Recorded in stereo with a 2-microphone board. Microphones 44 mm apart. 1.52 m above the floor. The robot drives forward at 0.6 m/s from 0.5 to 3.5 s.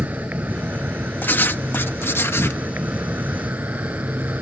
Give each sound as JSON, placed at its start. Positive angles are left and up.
{"t": 0.0, "sound": "an insect", "side_deg": -45}
{"t": 1.2, "sound": "writing", "side_deg": 50}